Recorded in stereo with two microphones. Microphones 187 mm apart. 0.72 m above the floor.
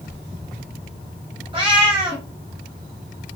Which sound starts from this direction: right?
A cat meowing, at 1.5 s.